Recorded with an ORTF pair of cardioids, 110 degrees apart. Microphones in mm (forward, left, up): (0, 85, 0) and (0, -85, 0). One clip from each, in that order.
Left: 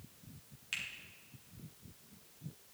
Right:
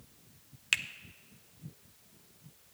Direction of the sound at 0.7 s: 65° right.